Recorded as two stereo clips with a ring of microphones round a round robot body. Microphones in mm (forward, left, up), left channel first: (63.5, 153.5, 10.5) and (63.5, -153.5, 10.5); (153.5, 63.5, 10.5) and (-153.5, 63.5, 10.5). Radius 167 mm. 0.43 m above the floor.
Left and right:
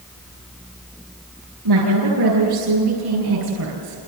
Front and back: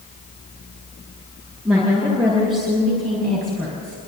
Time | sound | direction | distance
1.6 | a woman speaking | 105° right | 8.5 m